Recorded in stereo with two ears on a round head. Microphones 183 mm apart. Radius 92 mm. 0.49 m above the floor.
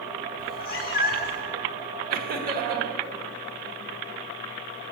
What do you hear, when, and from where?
0.4 s a cat meowing: 45° left (ahead or behind), 0.8 m
2.1 s laughter: 45° right (ahead or behind), 1.3 m